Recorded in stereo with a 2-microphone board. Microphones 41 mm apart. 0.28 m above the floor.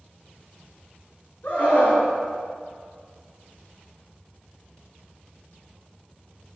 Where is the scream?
55° left (ahead or behind), 3 m.